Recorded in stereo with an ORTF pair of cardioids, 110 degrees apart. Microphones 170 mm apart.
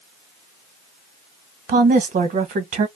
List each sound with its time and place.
1.7 s a woman speaking: 55° right, 1.1 m